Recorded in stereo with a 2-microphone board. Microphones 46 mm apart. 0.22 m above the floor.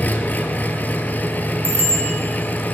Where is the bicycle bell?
45° right (ahead or behind), 4 m.